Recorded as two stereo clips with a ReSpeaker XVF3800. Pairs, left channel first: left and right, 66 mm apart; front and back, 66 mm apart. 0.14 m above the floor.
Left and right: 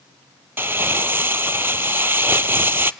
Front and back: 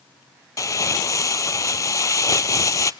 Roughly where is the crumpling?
Ahead right.